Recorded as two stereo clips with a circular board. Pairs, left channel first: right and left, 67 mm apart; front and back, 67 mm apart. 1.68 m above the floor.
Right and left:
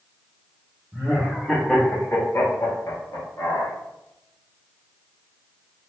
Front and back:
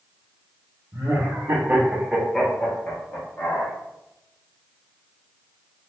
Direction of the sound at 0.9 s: 165° left.